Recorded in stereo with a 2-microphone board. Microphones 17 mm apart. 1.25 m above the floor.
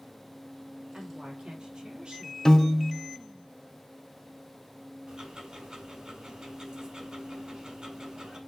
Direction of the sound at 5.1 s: 45° right (ahead or behind).